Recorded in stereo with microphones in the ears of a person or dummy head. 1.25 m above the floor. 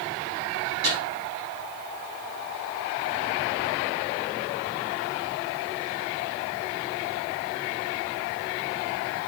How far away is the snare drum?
About 8 m.